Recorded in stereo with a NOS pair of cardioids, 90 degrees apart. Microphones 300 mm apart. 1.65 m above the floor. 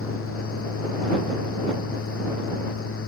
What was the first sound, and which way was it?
A fan, 50° left.